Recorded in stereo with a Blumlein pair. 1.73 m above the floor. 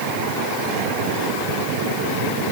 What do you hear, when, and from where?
Only background noise.